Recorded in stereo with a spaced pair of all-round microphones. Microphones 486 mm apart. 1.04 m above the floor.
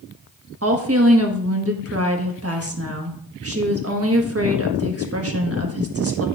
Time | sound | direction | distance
0.6 | a woman speaking | 30° right (ahead or behind) | 1.3 m